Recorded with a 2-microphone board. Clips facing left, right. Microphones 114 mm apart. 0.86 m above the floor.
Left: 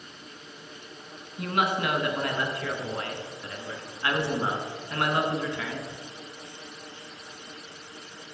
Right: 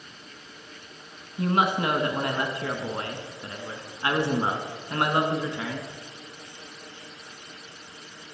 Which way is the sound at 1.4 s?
25° right (ahead or behind).